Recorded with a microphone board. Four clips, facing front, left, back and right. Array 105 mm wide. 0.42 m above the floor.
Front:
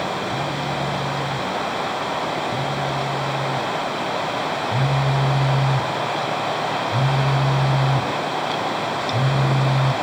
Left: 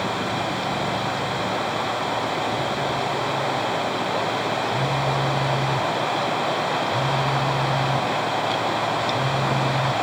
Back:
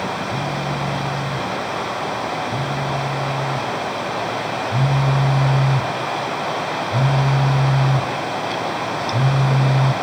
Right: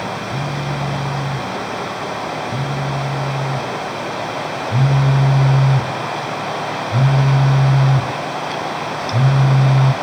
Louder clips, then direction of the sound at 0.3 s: Right 1 dB, back 1 dB; 100° right.